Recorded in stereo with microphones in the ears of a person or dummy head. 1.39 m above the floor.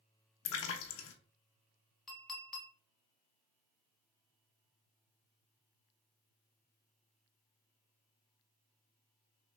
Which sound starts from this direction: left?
A splash, at 0.5 s.